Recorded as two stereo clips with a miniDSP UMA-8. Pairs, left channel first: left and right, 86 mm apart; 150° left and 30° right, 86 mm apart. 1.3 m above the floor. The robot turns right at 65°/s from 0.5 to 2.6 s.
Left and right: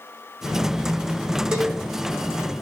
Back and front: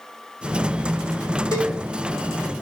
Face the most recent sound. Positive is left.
turn(degrees=-100)